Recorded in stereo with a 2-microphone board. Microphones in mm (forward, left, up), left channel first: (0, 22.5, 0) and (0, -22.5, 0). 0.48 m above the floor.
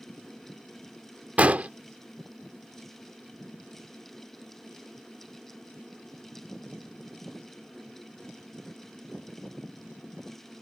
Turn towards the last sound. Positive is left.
turn(degrees=-35)  # may be behind; listen again after turning